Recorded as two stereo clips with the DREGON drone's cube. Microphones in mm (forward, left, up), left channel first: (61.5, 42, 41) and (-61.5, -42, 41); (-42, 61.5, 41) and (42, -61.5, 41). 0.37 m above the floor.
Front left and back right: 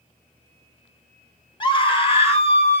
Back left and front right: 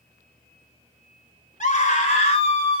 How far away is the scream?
About 3.5 m.